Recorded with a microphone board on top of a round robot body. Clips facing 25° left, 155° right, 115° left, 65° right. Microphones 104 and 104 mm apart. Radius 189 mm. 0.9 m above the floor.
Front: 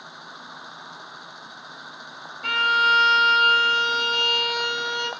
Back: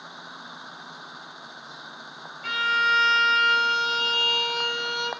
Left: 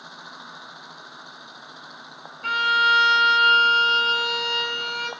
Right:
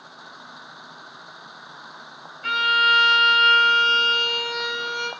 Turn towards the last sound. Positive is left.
turn(degrees=60)